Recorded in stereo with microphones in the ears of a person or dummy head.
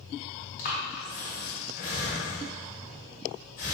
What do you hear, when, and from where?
0.6 s breathing: 50° left (ahead or behind), 1.2 m